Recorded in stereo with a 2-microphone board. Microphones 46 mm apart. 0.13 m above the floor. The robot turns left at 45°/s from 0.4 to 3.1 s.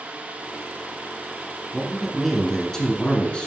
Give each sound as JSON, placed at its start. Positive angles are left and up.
{"t": 1.7, "sound": "a man speaking", "azimuth_deg": -155, "distance_m": 1.3}